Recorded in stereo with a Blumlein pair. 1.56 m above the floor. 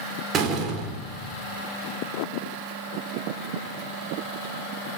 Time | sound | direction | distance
0.3 | a door slam | 30° right | 4 m